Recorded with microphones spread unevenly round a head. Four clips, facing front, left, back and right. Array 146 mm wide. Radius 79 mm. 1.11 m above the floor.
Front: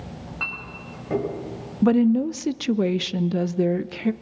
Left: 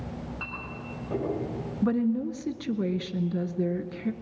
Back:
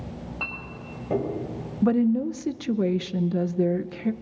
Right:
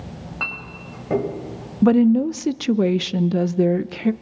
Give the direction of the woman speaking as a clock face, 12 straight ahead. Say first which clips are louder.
Right 11 dB, front 3 dB; 3 o'clock.